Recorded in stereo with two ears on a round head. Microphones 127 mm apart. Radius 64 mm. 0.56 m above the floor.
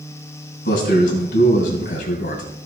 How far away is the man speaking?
About 3.5 m.